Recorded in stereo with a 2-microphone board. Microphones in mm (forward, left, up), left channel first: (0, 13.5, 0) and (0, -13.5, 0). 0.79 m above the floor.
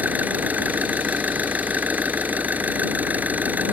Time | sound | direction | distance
0.0 | an engine running | 85° right | ?